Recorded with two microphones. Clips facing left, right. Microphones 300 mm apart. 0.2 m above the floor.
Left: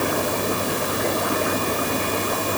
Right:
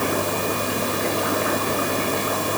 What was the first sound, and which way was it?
Only background noise.